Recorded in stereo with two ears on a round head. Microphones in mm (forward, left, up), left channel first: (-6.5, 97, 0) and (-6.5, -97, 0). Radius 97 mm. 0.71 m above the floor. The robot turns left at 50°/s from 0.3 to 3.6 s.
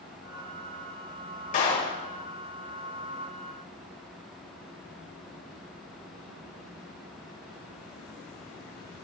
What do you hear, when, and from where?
1.5 s a clap: 40° left (ahead or behind), 2.5 m; by 2.0 s 15° left (ahead or behind), 2.5 m